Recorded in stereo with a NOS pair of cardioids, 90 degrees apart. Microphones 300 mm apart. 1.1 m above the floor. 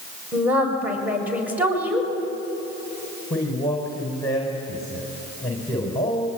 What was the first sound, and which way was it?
A woman speaking, 5° right.